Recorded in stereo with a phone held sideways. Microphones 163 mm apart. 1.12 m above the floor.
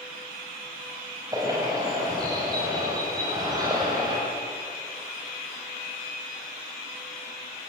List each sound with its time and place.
1.3 s a bird: 25° right (ahead or behind), 8.5 m